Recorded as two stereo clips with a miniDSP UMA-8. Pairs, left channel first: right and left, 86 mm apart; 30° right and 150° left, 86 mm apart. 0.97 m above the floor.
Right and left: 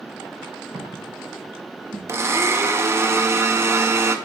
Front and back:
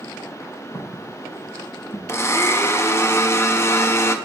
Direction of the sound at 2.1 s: 30° left.